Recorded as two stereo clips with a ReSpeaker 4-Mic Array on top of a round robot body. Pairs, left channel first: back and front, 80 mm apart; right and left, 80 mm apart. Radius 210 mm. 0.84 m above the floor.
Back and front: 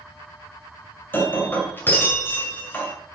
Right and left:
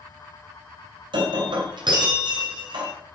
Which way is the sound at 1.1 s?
115° left.